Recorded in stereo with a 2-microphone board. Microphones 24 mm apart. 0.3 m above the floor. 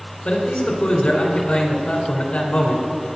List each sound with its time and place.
0.2 s a man speaking: 70° left (ahead or behind), 3 m